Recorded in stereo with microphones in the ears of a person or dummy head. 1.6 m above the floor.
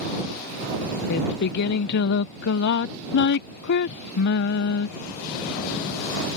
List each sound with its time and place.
1.1 s singing: 60° left (ahead or behind)